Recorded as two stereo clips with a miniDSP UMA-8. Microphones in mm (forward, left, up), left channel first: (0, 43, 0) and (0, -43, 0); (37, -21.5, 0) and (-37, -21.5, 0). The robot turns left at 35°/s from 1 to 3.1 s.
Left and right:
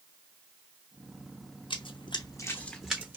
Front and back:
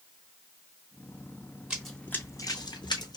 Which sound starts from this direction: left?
Running footsteps, at 1.7 s.